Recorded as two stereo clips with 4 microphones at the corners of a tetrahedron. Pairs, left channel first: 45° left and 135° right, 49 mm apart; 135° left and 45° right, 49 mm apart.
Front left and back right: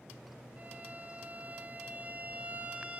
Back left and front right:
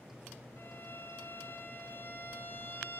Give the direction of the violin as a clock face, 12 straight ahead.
6 o'clock.